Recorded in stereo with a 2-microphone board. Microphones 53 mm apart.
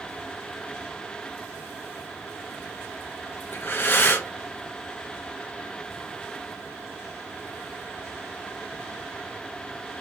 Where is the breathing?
40° left (ahead or behind), 0.8 m.